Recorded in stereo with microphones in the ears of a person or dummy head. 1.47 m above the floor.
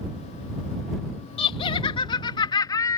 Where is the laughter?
30° left (ahead or behind); by 3.0 s 15° left (ahead or behind).